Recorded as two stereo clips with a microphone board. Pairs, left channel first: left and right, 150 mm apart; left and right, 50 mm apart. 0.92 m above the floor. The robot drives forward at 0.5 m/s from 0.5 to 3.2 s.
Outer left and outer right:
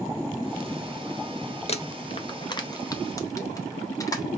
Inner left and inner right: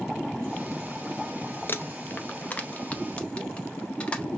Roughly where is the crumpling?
Left.